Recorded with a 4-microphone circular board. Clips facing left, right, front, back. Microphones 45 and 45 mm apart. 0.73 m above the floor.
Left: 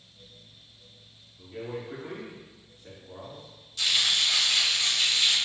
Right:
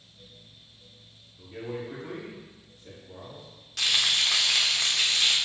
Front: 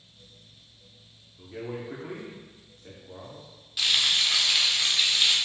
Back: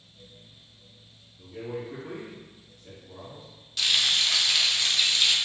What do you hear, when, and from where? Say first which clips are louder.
1.4 s a man speaking: right 1 dB, back 1 dB; 10° right, 1.1 m; by 3.5 s 40° left, 1.5 m
3.8 s frying: right 1 dB, even; 80° right, 0.8 m